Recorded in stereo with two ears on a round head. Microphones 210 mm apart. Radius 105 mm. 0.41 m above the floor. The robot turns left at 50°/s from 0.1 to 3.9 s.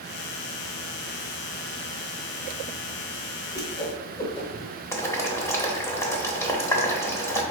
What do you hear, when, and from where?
3.5 s a whoosh: 15° left (ahead or behind), 1.0 m; by 4.7 s 20° left (ahead or behind), 1.0 m
4.9 s boiling: 15° left (ahead or behind), 0.8 m